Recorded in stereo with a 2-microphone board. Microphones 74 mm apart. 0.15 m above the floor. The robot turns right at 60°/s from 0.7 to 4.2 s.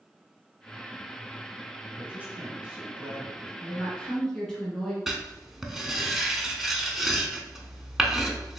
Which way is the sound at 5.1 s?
5° right (ahead or behind).